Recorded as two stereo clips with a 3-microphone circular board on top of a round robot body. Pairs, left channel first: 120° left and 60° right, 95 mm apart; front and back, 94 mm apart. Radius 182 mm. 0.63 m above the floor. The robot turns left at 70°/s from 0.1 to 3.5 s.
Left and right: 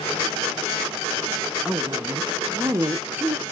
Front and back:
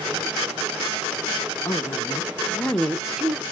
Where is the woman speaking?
Straight ahead, 0.9 m; by 3.4 s 120° right, 0.9 m.